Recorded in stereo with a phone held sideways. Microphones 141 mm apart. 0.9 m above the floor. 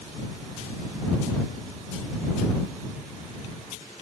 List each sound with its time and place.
Only background noise.